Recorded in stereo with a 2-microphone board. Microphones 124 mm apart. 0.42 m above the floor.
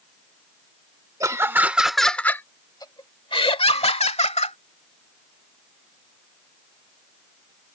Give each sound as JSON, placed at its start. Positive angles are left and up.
{"t": 1.2, "sound": "laughter", "side_deg": -25}